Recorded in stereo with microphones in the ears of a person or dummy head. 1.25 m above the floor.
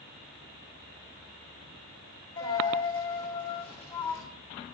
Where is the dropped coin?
30° left (ahead or behind), 3.5 m.